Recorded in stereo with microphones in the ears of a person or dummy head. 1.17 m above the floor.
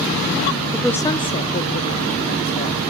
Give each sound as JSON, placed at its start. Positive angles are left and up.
{"t": 0.7, "sound": "a woman speaking", "side_deg": 0, "distance_m": 0.6}